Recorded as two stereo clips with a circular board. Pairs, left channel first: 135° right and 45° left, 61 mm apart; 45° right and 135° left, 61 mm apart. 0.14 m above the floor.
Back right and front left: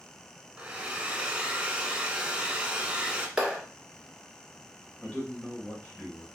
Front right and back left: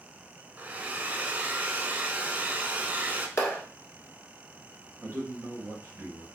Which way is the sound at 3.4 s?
25° right.